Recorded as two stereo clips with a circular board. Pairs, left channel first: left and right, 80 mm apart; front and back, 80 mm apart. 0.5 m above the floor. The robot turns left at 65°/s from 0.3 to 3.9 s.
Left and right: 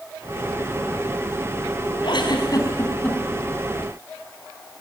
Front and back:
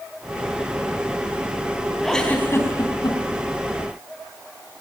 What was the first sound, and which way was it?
A giggle, 85° left.